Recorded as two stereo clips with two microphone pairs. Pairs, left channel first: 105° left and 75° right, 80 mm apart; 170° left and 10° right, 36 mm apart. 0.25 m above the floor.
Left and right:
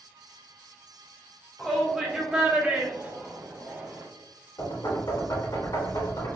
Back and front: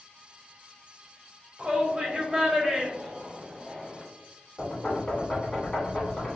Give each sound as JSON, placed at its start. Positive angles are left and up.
{"t": 1.6, "sound": "a shout", "azimuth_deg": 20, "distance_m": 1.1}
{"t": 4.6, "sound": "knocking", "azimuth_deg": 95, "distance_m": 1.5}